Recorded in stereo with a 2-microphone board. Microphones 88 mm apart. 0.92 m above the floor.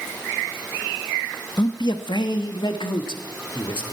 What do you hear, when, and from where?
1.6 s a man speaking: 60° left (ahead or behind), 0.8 m; by 3.9 s 85° left, 1.8 m